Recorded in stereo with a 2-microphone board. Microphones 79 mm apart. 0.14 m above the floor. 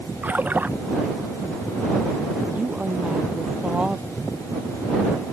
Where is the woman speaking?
15° right (ahead or behind).